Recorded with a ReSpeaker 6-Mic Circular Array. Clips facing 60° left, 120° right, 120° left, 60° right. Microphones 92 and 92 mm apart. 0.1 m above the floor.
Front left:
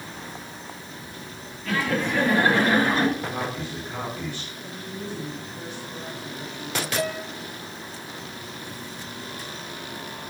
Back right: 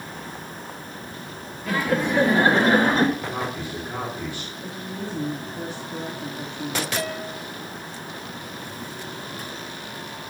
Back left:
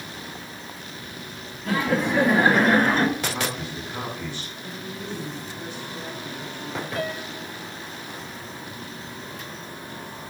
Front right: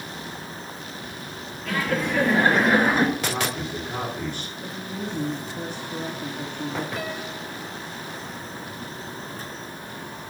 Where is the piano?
145° left, 4 m.